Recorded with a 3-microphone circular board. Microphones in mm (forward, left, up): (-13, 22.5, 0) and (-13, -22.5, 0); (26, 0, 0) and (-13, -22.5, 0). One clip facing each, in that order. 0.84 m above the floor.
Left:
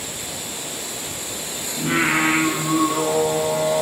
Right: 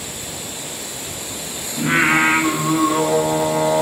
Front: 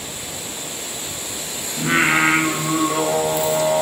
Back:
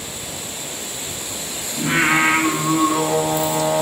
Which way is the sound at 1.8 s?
25° right.